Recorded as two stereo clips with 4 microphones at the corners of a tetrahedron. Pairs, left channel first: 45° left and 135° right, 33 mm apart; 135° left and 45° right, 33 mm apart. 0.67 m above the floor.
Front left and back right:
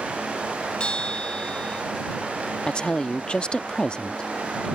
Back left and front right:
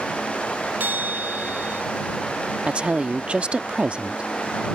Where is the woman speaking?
5° right.